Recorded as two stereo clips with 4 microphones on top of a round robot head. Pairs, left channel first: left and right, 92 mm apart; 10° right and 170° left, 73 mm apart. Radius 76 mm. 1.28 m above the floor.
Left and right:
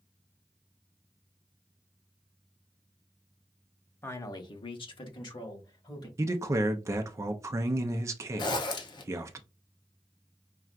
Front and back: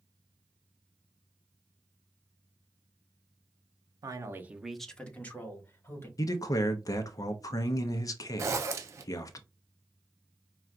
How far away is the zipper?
About 0.5 m.